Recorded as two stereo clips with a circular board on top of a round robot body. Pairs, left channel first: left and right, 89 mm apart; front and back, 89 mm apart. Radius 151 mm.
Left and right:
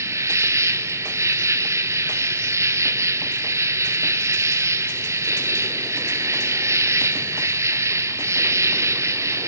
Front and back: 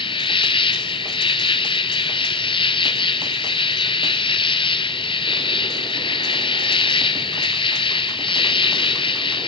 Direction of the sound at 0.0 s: 30° right.